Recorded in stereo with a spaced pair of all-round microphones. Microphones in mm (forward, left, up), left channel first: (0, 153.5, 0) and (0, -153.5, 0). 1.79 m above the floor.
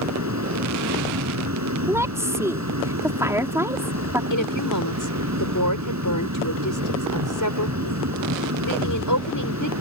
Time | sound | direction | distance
0.0 | a fan | 60° right (ahead or behind) | ?
1.9 | a woman speaking | 10° right (ahead or behind) | ?
4.3 | a woman speaking | 85° left | ?